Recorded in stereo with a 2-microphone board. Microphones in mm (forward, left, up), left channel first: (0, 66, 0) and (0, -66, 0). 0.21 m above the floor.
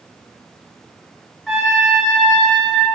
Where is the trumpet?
Centre (ahead or behind), 3.5 m.